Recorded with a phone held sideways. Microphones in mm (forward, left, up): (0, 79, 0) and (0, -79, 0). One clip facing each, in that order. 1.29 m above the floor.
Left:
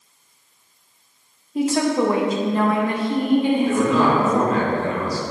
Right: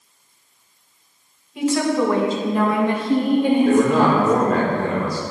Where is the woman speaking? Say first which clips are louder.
Even; 40° left (ahead or behind), 1.2 m; by 4.3 s 60° right (ahead or behind), 1.8 m.